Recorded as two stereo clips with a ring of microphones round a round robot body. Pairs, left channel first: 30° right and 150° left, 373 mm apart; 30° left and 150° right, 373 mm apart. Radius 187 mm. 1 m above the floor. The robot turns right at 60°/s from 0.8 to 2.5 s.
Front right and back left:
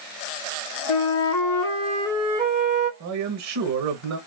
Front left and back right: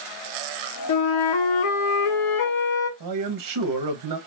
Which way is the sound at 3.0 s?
170° right.